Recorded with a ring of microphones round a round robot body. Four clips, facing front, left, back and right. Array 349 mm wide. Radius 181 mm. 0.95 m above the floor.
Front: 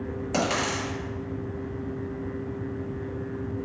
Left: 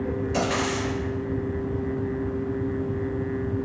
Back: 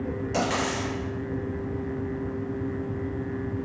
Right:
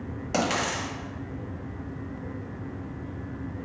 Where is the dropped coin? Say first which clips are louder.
Right 1 dB, front 1 dB; 60° right, 1.3 m.